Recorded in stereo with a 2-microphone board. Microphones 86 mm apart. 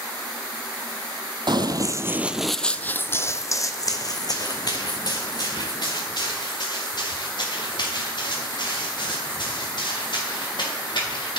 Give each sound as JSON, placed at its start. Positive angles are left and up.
{"t": 1.5, "sound": "running footsteps", "side_deg": -60, "distance_m": 0.6}